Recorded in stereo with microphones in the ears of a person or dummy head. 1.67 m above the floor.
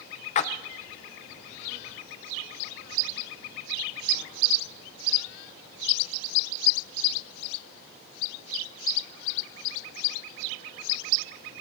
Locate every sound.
0.3 s a splash: 40° left (ahead or behind), 1.1 m